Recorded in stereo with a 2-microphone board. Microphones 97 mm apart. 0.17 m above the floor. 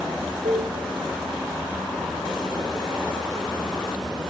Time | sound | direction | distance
0.5 | a cowbell | 80° right | 4 m